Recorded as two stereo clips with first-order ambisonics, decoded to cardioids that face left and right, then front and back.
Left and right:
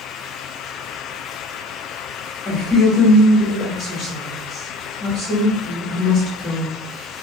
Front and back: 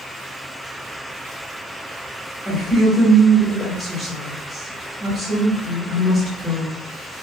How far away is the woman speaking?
About 1.3 m.